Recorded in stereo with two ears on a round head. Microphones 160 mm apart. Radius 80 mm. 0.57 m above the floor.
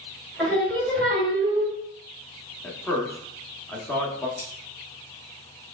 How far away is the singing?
About 1.4 m.